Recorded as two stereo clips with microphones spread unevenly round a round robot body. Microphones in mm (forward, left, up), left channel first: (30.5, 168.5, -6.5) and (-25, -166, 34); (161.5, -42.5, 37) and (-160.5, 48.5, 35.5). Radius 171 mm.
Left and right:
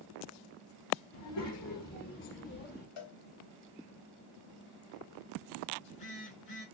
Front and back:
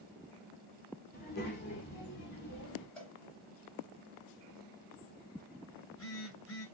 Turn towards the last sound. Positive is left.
turn(degrees=30)